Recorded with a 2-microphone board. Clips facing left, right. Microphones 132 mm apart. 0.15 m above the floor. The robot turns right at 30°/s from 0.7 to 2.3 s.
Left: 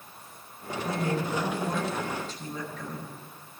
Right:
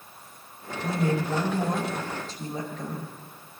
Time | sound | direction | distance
0.8 | a woman speaking | 80° right | 6 m